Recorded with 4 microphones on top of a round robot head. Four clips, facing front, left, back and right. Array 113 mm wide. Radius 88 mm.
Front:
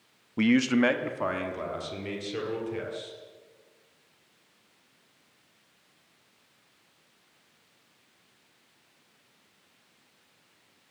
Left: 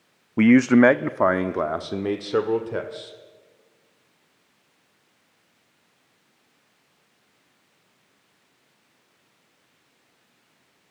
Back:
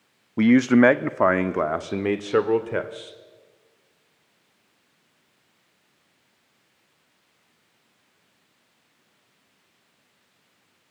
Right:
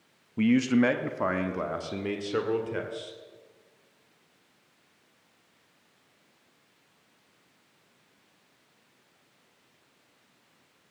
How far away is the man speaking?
About 0.8 m.